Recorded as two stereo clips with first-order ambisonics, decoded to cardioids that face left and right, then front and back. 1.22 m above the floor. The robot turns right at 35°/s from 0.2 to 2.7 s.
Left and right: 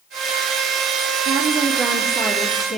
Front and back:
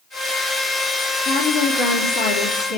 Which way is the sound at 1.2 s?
35° right.